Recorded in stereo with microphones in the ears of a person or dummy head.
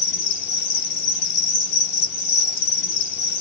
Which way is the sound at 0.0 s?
50° left (ahead or behind).